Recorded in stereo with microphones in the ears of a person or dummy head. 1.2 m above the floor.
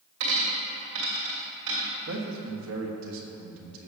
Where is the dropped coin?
75° right (ahead or behind), 2.5 m.